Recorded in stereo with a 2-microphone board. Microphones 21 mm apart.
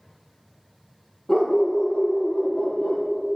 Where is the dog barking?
40° left (ahead or behind), 3.5 m; by 3.1 s 55° left (ahead or behind), 4 m.